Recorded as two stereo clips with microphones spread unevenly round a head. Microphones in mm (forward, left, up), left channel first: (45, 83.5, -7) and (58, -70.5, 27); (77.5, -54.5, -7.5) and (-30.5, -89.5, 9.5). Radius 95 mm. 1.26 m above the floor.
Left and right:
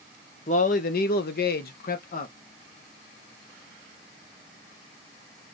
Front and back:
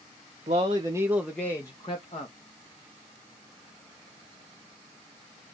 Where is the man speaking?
140° left, 0.9 m; by 2.4 s 65° left, 1.1 m.